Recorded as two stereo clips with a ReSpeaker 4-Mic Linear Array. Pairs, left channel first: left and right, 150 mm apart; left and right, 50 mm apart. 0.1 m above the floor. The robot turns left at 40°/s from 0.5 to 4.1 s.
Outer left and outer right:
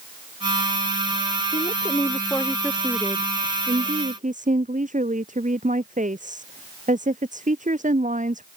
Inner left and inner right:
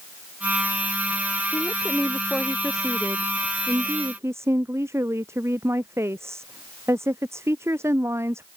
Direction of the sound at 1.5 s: 45° left.